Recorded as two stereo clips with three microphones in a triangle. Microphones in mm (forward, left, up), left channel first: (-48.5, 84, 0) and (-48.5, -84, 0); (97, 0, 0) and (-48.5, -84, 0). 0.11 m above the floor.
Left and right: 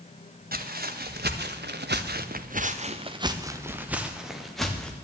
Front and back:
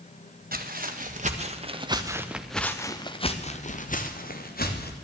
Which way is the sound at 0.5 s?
115° right.